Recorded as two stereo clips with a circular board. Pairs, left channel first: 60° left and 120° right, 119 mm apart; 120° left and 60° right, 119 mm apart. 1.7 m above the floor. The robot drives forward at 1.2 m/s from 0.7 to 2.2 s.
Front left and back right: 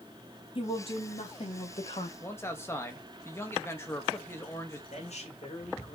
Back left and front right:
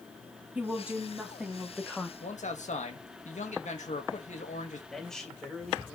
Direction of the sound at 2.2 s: 130° left.